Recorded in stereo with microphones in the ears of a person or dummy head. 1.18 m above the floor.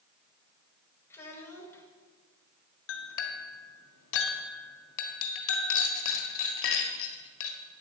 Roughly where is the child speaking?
Centre.